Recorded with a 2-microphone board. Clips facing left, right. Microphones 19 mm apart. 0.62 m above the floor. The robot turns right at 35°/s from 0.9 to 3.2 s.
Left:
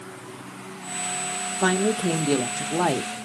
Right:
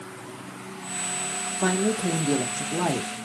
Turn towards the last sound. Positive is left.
turn(degrees=100)